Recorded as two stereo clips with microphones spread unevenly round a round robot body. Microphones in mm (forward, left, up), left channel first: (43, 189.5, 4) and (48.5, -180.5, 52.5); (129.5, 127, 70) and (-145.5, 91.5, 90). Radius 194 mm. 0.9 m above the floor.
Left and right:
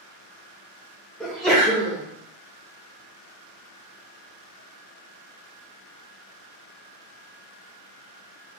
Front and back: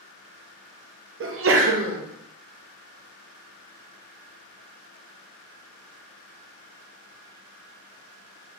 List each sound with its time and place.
1.2 s a sneeze: 170° left, 0.7 m